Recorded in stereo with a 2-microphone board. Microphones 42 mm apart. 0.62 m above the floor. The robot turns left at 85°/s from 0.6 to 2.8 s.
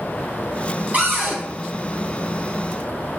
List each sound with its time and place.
0.9 s a cupboard door: 30° right, 1.9 m; by 1.4 s 70° right, 1.9 m